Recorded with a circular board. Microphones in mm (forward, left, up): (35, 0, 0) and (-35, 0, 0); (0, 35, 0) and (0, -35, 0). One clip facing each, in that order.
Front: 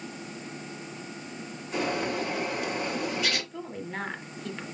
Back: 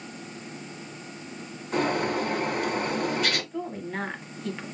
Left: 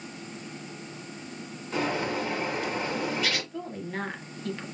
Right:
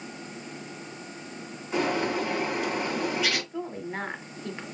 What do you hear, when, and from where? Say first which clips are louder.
1.7 s a bird: back 4 dB, right 2 dB; 170° right, 2 m
3.5 s a woman speaking: back 4 dB, right 1 dB; 100° right, 1.0 m